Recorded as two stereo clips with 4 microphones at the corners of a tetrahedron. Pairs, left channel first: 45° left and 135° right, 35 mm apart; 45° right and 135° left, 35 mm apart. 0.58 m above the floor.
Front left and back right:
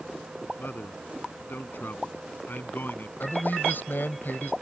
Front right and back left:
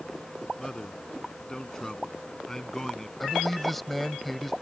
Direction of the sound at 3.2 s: 40° left.